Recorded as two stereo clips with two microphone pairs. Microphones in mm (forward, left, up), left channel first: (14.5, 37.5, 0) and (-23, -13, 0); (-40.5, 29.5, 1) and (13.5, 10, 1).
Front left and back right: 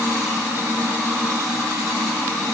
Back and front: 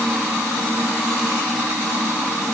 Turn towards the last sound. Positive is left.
No sound to turn to.